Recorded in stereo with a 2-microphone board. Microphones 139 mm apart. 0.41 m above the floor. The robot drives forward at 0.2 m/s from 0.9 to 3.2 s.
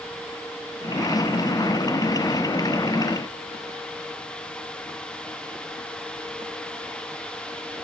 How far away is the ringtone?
I don't hear a ringtone.